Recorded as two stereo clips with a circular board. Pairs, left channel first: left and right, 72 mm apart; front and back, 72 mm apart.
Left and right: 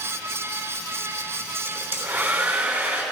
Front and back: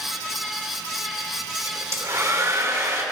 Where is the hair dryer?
150° right, 3 m.